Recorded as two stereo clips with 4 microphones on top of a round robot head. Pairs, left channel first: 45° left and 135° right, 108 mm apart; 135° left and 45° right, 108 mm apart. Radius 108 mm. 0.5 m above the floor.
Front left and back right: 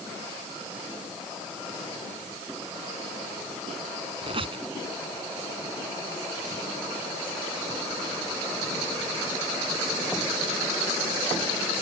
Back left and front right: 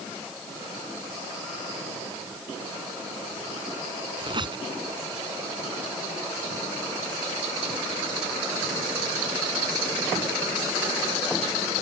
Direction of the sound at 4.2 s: 95° right.